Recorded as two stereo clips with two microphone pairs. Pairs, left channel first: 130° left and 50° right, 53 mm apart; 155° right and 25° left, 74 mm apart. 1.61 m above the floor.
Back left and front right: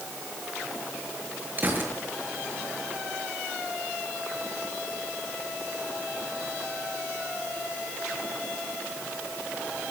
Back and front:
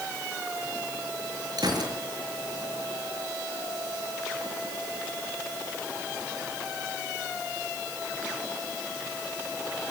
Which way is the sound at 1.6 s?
5° left.